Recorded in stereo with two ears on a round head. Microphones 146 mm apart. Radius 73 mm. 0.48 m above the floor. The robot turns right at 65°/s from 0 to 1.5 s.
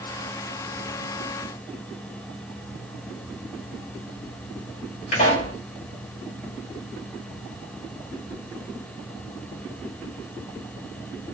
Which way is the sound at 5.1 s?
60° left (ahead or behind).